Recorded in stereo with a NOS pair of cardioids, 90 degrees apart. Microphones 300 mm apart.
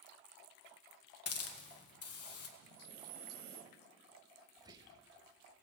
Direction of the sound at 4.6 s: 15° right.